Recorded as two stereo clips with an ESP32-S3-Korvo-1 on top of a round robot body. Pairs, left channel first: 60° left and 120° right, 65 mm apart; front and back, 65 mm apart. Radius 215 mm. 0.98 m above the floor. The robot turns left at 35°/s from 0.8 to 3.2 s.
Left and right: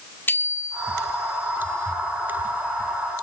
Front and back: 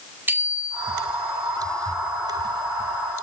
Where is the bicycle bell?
120° left, 4.5 m; by 1.0 s 110° left, 4.5 m.